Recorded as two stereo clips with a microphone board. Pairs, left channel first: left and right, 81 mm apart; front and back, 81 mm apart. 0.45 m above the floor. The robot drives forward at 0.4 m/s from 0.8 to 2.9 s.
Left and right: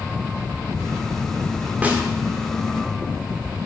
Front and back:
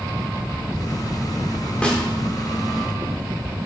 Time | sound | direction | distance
1.8 | a snare drum | 60° right | 1.2 m